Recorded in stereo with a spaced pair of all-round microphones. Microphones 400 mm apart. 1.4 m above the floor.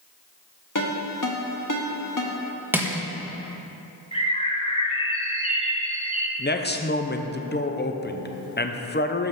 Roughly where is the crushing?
Centre.